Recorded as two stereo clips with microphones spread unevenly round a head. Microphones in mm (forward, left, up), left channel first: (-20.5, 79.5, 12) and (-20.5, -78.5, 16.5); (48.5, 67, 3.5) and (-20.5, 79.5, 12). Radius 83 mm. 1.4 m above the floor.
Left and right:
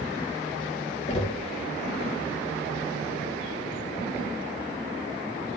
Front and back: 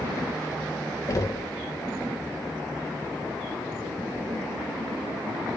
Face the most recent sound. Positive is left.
turn(degrees=35)